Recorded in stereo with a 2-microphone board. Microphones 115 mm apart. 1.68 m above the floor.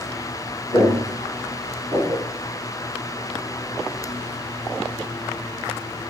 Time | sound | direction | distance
0.7 | footsteps | 15° left (ahead or behind) | 1.7 m